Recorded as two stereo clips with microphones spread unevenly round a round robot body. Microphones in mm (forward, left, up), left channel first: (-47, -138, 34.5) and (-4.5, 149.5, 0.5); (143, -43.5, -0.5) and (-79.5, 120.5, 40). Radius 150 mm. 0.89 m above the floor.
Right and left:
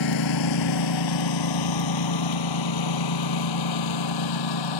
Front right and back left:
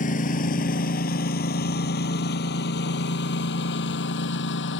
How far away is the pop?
I don't hear a pop.